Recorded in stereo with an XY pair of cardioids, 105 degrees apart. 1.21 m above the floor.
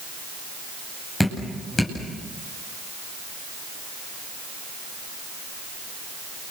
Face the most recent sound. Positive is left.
turn(degrees=10)